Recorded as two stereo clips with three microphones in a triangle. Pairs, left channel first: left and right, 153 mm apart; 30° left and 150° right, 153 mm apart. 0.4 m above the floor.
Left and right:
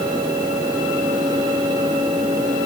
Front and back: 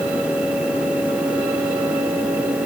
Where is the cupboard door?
No cupboard door in this recording.